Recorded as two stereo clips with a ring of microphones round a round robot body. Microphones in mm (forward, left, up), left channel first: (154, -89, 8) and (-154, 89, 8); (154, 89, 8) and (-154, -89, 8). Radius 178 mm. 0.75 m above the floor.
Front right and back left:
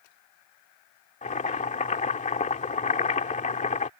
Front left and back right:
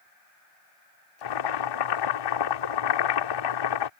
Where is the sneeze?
No sneeze in this recording.